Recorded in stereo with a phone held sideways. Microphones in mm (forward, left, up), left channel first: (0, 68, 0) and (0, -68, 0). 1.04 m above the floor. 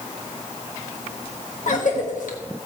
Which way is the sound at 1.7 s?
75° left (ahead or behind).